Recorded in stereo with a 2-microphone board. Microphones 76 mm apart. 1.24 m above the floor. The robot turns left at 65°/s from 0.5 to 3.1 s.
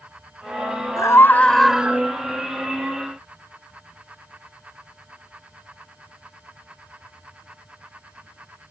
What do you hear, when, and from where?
1.0 s a scream: 45° left; by 2.0 s 25° right